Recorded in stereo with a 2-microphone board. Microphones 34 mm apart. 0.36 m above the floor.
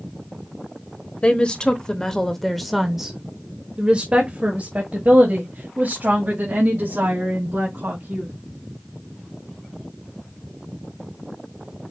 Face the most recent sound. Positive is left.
turn(degrees=-55)  # may be behind; listen again after turning